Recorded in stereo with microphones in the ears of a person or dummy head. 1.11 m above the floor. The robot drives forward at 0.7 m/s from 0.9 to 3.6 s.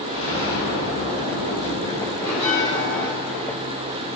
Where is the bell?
20° left (ahead or behind), 1.9 m; by 3.1 s 15° left (ahead or behind), 2.5 m.